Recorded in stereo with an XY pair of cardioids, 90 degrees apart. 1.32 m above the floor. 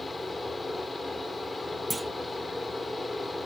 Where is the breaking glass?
No breaking glass in this recording.